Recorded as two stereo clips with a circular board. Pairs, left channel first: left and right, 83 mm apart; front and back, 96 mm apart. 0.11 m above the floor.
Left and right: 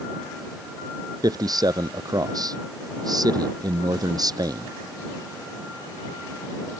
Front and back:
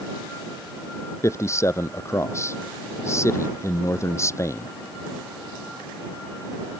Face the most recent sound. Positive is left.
turn(degrees=-55)